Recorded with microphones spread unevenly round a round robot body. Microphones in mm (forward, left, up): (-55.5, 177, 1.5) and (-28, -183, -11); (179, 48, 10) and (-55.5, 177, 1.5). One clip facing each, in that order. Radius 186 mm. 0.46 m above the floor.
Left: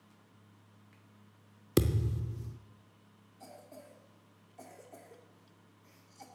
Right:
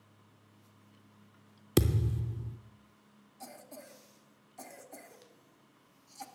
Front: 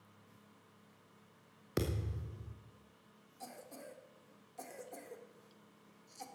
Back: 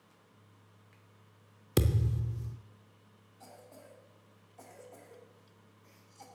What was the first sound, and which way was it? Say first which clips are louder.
A thud: right 1 dB, back 7 dB; 170° right.